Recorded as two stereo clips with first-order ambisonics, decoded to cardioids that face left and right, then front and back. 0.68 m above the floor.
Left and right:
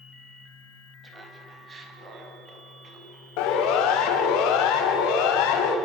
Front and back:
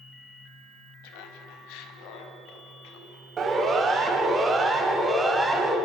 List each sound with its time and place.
1.0 s laughter: 15° right, 4 m; by 4.4 s 35° right, 7.5 m
3.4 s a siren: 110° left, 4 m; by 5.8 s 95° left, 5 m